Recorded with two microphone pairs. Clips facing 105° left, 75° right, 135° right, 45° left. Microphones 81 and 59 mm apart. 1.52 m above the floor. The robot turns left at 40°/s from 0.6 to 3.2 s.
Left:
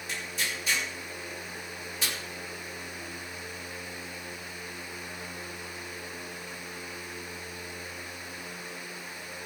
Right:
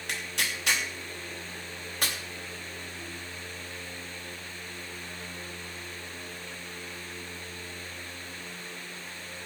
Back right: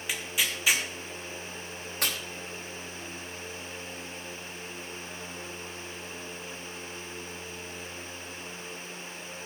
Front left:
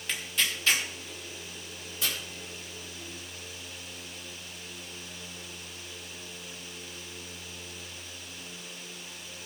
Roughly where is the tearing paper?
Ahead right.